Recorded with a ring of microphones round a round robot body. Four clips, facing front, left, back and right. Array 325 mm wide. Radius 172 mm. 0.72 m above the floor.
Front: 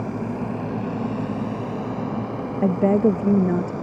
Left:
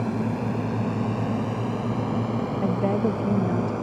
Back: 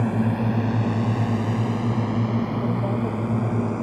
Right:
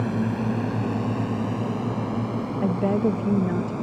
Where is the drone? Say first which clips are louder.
Right 1 dB, back 4 dB; 170° right; by 3.8 s 170° left.